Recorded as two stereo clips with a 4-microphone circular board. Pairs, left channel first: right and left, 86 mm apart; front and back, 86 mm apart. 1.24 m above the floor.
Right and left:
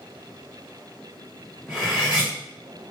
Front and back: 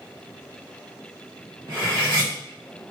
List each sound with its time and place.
1.7 s cutlery clinking: 165° left, 1.6 m